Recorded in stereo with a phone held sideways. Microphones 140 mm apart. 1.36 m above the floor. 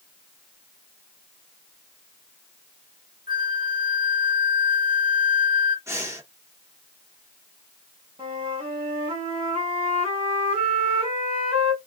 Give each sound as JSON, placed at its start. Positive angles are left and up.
{"t": 3.3, "sound": "a flute", "side_deg": 80, "distance_m": 0.6}
{"t": 5.9, "sound": "breathing", "side_deg": -20, "distance_m": 1.0}
{"t": 8.2, "sound": "a flute", "side_deg": -45, "distance_m": 3.0}